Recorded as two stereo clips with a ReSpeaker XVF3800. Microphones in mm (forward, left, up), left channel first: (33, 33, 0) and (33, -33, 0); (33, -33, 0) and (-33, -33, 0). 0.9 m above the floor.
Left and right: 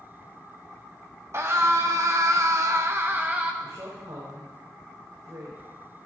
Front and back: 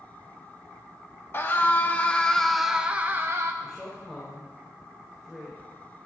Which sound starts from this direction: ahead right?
A scream, at 1.3 s.